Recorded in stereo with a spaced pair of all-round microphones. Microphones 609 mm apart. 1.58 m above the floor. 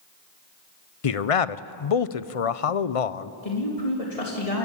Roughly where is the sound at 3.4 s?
Left.